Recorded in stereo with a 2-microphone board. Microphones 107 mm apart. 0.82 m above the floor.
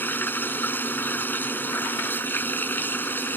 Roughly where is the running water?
Centre.